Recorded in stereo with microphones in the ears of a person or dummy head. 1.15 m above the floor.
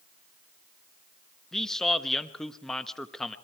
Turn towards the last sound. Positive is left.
turn(degrees=0)  # may be behind; listen again after turning